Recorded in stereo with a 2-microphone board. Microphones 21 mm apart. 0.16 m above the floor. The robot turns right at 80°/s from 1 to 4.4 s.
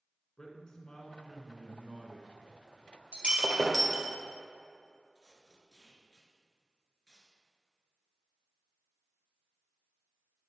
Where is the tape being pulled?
10° left (ahead or behind), 1.9 m.